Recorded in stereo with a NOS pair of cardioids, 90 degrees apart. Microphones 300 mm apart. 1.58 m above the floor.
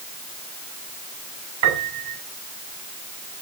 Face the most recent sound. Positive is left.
turn(degrees=-60)